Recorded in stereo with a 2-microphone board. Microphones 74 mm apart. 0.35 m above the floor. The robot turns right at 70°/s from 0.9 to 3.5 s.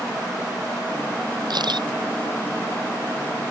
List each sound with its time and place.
1.5 s a camera shutter: 70° right (ahead or behind); by 1.9 s 85° right